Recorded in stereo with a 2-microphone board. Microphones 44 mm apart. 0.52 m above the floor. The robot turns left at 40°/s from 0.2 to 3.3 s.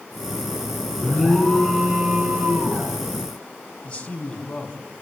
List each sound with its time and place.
1.0 s an alarm: 30° left, 5 m; by 2.9 s 50° right, 5 m
3.8 s a man speaking: 30° left (ahead or behind), 4 m